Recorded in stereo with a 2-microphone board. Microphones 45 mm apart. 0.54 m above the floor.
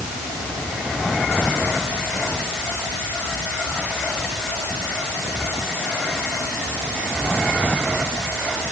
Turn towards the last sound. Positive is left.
No sound to turn to.